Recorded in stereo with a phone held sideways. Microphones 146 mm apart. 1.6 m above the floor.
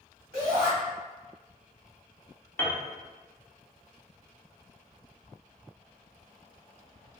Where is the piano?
15° left (ahead or behind), 0.5 m.